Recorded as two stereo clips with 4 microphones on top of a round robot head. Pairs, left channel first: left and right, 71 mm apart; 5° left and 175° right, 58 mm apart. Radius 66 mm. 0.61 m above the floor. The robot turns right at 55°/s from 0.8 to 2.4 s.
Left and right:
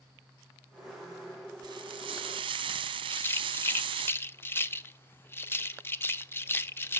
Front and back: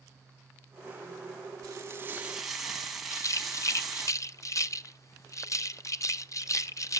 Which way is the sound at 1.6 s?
130° right.